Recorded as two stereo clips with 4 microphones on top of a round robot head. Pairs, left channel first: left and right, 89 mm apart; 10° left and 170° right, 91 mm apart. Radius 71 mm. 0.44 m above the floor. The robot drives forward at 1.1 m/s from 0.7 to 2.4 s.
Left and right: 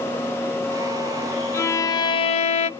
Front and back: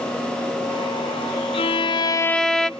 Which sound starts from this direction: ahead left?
A violin, at 1.5 s.